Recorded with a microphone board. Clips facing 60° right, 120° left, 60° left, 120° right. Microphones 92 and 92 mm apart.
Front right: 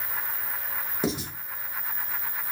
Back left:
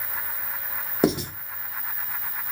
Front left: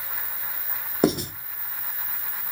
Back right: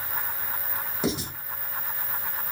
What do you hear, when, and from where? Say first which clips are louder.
1.0 s writing: back left 7 dB, front left 7 dB; 95° left, 0.6 m